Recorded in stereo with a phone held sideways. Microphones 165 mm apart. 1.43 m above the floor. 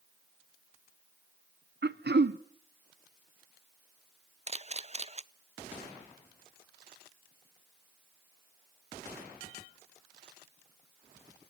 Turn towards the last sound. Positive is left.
turn(degrees=-40)  # may be behind; listen again after turning